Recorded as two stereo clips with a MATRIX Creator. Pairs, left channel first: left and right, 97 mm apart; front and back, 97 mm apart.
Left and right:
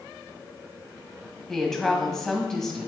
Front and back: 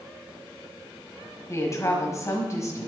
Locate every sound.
1.5 s a woman speaking: 10° left, 1.5 m